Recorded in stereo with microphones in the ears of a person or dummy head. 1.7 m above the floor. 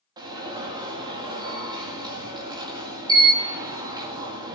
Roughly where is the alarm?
Right.